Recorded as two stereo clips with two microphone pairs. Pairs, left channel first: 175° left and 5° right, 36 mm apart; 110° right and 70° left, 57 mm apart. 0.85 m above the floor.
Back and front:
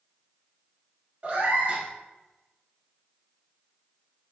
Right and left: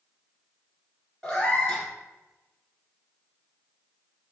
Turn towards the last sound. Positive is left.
turn(degrees=-35)